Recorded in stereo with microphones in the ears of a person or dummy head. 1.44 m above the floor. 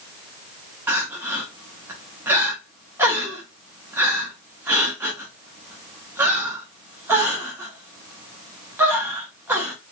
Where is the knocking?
No knocking in this recording.